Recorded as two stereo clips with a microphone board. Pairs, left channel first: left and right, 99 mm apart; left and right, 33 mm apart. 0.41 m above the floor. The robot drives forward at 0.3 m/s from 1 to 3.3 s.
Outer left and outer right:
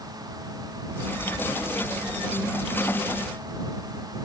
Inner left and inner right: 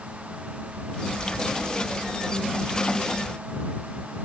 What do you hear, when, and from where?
Only background noise.